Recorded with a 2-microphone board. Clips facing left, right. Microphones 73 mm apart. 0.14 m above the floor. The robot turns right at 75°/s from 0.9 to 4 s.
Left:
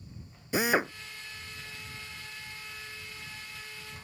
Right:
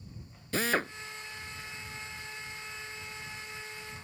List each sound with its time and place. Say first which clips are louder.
0.5 s a drill: left 3 dB; 15° left (ahead or behind)